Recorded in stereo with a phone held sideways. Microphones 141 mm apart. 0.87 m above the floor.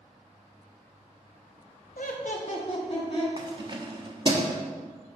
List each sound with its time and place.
2.0 s laughter: 70° left (ahead or behind), 0.9 m; by 3.3 s 35° left (ahead or behind), 2 m
3.4 s keys jangling: 35° right (ahead or behind), 0.8 m